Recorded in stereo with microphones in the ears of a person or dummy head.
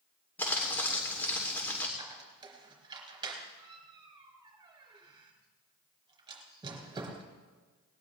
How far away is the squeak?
About 3 m.